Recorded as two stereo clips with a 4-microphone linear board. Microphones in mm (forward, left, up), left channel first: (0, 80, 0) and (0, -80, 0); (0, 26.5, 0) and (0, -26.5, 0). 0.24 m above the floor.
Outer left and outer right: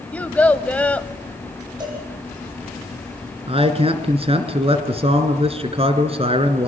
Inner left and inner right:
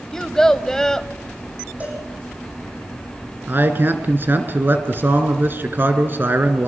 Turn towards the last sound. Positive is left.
turn(degrees=-40)  # may be behind; listen again after turning